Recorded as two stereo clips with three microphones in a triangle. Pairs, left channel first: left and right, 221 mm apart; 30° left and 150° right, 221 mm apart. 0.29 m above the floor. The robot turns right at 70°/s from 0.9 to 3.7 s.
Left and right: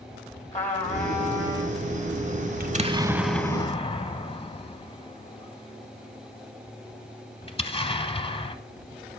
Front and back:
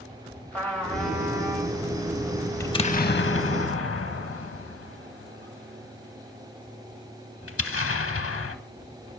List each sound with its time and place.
0.5 s a trumpet: 110° left, 1.8 m; by 1.8 s 165° left, 1.8 m
2.6 s an explosion: 50° right, 0.5 m; by 8.6 s 25° left, 0.5 m